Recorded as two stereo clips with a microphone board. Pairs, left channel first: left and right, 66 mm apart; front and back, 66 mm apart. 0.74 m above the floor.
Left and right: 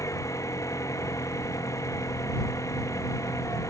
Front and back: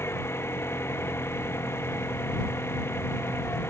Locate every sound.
0.0 s an engine running: 50° left